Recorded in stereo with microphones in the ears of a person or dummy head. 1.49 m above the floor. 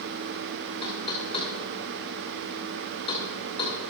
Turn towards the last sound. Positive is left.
turn(degrees=25)  # may be behind; listen again after turning